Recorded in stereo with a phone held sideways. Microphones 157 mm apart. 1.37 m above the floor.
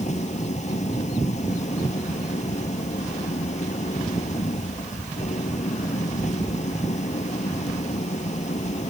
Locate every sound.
0.0 s an engine running: 45° left (ahead or behind)